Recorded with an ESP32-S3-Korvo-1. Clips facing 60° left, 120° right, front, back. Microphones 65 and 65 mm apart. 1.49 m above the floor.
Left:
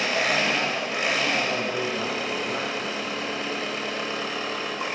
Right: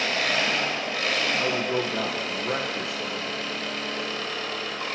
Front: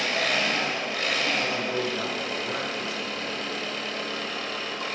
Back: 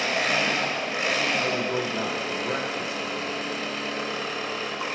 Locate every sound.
0.0 s an engine running: 120° left, 1.5 m
1.4 s a man speaking: 115° right, 1.6 m